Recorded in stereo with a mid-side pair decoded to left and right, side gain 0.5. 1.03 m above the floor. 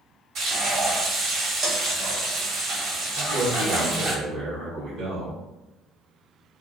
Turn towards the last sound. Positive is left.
turn(degrees=-65)